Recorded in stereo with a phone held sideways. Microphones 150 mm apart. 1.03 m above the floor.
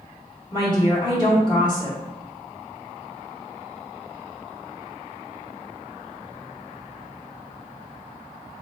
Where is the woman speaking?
30° left (ahead or behind), 1.3 m.